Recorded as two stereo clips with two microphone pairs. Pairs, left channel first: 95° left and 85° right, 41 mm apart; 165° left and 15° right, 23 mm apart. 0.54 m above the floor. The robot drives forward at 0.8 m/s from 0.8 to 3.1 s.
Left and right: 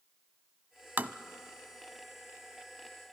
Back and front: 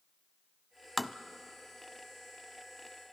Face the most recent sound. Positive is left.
turn(degrees=-170)